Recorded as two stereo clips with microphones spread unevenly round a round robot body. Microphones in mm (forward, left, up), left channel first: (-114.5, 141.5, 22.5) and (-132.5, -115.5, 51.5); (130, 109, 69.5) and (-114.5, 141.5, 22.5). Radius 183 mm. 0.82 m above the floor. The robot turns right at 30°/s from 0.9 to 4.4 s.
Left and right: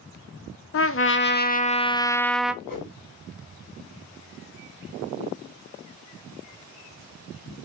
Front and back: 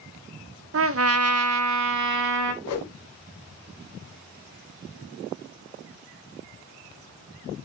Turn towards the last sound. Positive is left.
turn(degrees=70)